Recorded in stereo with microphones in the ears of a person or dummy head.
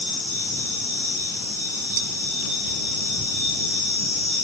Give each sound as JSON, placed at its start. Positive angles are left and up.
{"t": 2.0, "sound": "dishes clattering", "side_deg": -65}